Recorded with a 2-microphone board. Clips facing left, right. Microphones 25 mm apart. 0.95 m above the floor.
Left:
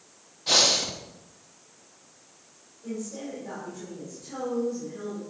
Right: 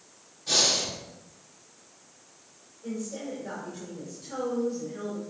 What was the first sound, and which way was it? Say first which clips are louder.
Breathing: left 3 dB; 60° left (ahead or behind).